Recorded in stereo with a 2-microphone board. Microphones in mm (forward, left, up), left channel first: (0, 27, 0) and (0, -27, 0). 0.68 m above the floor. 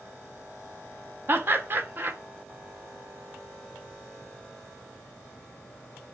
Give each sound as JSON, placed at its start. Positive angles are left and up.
{"t": 1.3, "sound": "laughter", "side_deg": -40, "distance_m": 0.6}